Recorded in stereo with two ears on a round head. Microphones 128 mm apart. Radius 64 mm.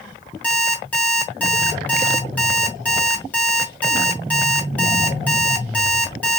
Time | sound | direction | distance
0.4 | an alarm clock | 10° left (ahead or behind) | 1.1 m